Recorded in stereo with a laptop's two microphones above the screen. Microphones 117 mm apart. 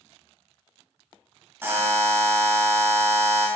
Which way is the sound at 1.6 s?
20° right (ahead or behind).